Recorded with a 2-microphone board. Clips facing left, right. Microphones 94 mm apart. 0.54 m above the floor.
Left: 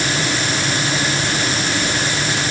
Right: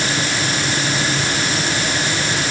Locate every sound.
Only background noise.